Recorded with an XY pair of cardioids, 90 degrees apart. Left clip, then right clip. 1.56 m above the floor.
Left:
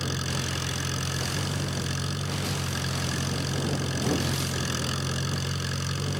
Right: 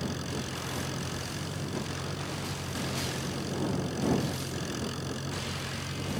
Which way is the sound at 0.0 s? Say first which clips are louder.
Left 5 dB; 60° left.